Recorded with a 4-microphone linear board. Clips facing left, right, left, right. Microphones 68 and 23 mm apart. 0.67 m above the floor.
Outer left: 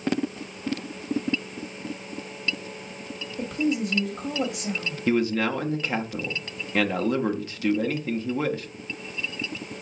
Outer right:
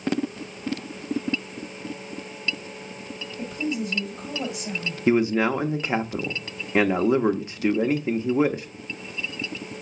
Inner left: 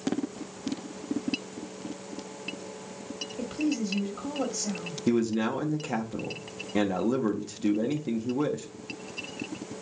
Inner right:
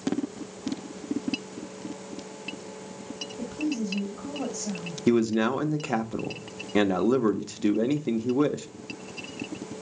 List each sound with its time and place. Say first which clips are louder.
3.4 s a woman speaking: outer left 3 dB, inner left 1 dB; 65° left (ahead or behind), 1.4 m
5.1 s a man speaking: outer right 3 dB, inner right 3 dB; 20° right (ahead or behind), 0.6 m